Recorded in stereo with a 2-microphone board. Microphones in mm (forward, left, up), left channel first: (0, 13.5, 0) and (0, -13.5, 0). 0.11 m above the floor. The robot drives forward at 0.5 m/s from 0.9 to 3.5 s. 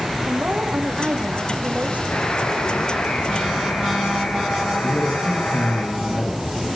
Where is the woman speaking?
65° right (ahead or behind), 5.5 m; by 2.0 s 60° right (ahead or behind), 5.5 m.